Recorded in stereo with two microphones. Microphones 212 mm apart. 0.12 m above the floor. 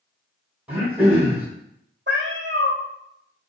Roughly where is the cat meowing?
Right.